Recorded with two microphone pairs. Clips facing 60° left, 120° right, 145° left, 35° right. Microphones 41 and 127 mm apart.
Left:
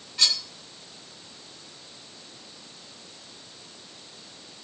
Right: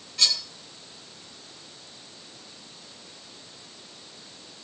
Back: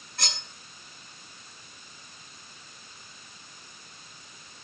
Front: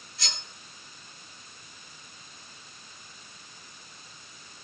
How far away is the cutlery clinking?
About 9.5 m.